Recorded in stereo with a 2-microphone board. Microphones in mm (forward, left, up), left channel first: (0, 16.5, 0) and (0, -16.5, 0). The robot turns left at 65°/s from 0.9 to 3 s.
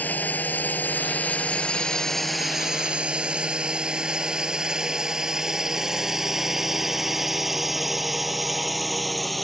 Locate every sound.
0.0 s a drone: 65° left (ahead or behind); by 9.4 s 5° left (ahead or behind)